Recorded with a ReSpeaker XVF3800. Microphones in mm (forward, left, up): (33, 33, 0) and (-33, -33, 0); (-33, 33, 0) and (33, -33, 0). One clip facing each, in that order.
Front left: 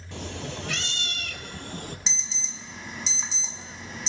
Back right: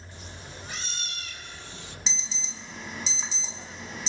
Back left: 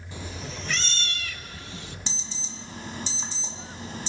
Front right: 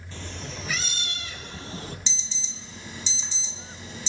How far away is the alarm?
About 1.6 m.